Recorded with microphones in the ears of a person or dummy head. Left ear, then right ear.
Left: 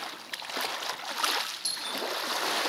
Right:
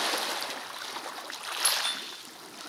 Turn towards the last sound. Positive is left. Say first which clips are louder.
# right 4 dB
turn(degrees=-55)  # may be behind; listen again after turning